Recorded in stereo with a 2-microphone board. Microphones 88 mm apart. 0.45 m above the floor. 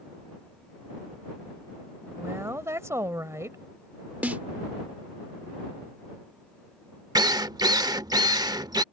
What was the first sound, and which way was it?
A woman speaking, 35° right (ahead or behind).